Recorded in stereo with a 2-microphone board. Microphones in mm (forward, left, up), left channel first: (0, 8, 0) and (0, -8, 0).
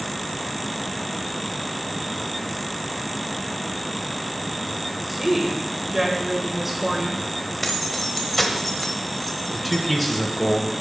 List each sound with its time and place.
5.1 s a woman speaking: 20° right (ahead or behind), 1.1 m
7.6 s keys jangling: 5° left (ahead or behind), 1.0 m
9.5 s a man speaking: centre (ahead or behind), 1.2 m